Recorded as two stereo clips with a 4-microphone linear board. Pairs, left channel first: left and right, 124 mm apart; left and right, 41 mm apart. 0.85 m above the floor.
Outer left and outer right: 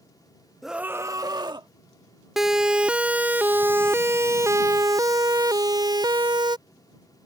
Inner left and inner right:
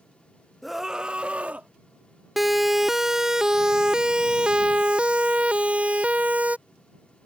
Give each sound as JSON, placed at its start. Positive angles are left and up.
{"t": 0.6, "sound": "a scream", "side_deg": 0}
{"t": 2.4, "sound": "a siren", "side_deg": 0}